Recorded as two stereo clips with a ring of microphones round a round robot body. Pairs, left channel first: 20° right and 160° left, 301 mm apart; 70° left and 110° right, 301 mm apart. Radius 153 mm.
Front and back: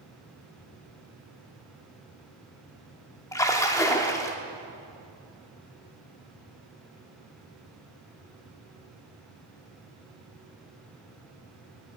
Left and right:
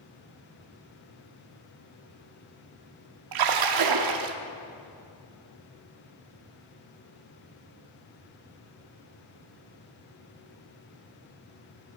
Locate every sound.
3.3 s a splash: 105° right, 0.9 m